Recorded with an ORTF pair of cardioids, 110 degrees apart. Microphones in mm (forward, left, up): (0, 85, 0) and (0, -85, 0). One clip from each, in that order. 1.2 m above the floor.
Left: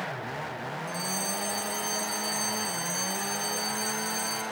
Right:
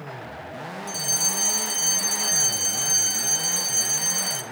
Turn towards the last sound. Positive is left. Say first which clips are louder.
# right 8 dB
turn(degrees=-60)